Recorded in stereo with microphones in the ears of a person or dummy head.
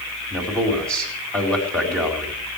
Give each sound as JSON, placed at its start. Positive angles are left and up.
{"t": 0.3, "sound": "a man speaking", "side_deg": 5, "distance_m": 4.0}